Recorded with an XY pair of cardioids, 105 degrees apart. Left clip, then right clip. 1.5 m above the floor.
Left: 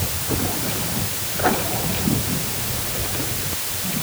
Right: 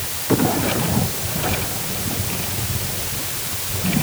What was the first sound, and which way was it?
Only background noise.